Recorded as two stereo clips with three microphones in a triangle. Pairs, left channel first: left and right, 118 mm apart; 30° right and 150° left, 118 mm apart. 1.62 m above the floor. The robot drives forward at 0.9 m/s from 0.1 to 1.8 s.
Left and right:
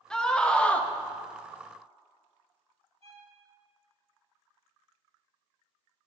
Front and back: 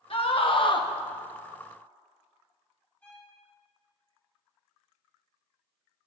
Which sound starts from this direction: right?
A violin, at 3.0 s.